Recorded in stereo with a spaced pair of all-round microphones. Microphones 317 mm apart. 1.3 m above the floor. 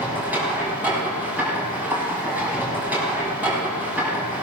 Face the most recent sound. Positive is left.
turn(degrees=-5)  # may be behind; listen again after turning